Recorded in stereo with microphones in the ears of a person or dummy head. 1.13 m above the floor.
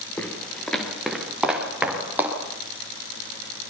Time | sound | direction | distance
0.2 | footsteps | 10° left (ahead or behind) | 7 m